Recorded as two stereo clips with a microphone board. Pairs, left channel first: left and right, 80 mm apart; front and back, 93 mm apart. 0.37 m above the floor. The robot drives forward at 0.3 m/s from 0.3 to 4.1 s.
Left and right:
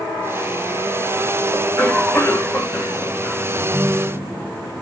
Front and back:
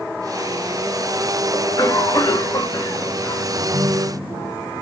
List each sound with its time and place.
1.5 s a cough: 20° left, 1.4 m; by 3.5 s 35° left, 1.0 m
3.6 s a ringtone: 125° right, 0.9 m; by 4.5 s 135° right, 1.0 m